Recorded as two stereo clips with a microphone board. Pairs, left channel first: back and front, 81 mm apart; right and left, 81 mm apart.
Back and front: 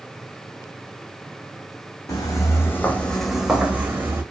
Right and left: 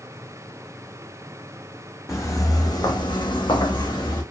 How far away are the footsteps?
About 0.8 m.